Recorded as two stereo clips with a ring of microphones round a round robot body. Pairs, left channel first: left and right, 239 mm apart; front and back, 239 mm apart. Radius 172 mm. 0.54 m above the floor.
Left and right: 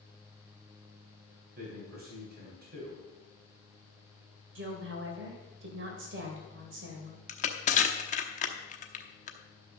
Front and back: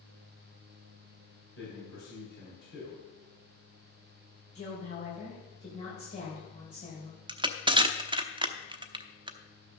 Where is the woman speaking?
65° right, 3 m.